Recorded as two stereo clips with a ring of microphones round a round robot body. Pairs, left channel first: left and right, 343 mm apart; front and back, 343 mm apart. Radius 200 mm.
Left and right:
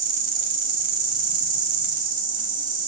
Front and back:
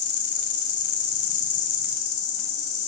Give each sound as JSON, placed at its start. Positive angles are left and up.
{"t": 0.0, "sound": "an insect", "azimuth_deg": -45, "distance_m": 1.1}